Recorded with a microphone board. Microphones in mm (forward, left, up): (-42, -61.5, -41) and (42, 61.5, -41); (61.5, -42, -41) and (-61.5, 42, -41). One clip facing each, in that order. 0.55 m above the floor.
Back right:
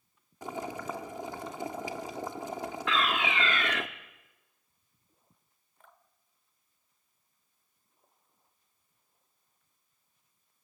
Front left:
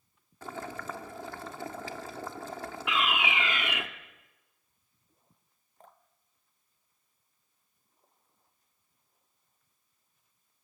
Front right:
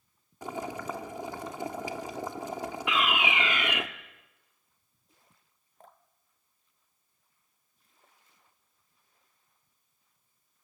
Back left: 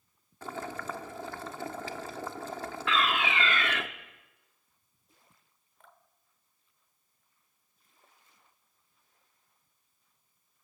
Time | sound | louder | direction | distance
0.4 | boiling | back right 3 dB, front right 2 dB | 80° right | 1.1 m
2.9 | a fire alarm | even, even | 10° left | 1.6 m
5.8 | dripping | front left 4 dB, front right 5 dB | 10° left | 1.1 m